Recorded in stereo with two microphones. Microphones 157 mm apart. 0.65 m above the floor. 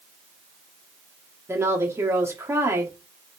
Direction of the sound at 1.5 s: 15° right (ahead or behind).